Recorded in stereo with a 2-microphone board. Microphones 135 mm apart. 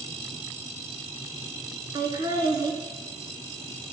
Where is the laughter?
35° right (ahead or behind), 1.5 m.